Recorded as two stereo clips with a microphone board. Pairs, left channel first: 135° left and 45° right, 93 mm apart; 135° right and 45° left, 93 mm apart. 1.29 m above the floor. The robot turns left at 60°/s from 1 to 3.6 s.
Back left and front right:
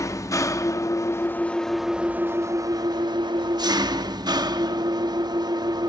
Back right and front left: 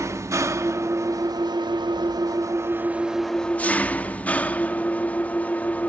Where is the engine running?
90° left, 1.0 m; by 5.9 s 65° right, 1.0 m.